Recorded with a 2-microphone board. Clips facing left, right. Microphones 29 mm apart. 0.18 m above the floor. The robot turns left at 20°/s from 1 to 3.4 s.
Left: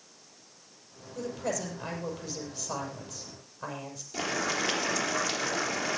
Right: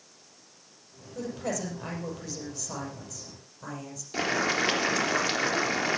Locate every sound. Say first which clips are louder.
1.1 s a woman speaking: even; 165° right, 6.5 m; by 4.0 s 150° left, 6.5 m
4.1 s boiling: right 4 dB; 35° right (ahead or behind), 3.5 m